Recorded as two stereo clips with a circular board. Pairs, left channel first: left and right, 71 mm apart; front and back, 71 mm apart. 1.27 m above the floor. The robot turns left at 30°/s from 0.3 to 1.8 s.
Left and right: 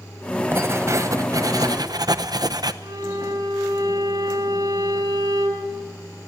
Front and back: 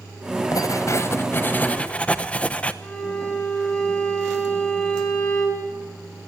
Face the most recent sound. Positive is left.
turn(degrees=-75)